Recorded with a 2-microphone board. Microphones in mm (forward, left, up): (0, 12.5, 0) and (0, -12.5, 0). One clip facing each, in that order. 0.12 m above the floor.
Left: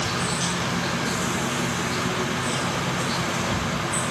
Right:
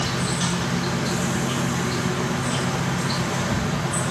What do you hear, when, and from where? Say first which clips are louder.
0.0 s an insect: right 1 dB; 25° right (ahead or behind), 2 m